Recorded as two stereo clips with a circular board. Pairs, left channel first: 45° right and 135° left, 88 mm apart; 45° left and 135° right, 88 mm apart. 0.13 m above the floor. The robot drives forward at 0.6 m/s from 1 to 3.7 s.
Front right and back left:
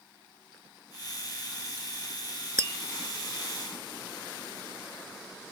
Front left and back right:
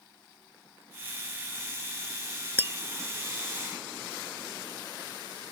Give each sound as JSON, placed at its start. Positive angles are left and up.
{"t": 2.6, "sound": "tapping", "azimuth_deg": 170}